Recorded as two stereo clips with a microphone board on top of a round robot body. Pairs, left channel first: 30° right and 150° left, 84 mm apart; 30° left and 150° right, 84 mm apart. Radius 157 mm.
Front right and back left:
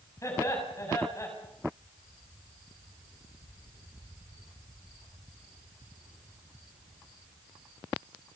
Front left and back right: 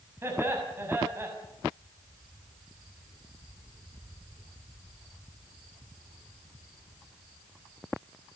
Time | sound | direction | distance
0.2 | laughter | 85° right | 6.5 m